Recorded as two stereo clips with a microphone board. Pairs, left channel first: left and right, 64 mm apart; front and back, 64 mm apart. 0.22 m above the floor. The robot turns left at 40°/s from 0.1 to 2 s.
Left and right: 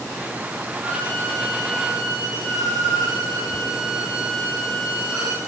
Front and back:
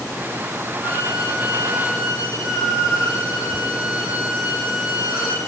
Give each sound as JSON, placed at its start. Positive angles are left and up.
{"t": 0.8, "sound": "a violin", "azimuth_deg": 25, "distance_m": 6.0}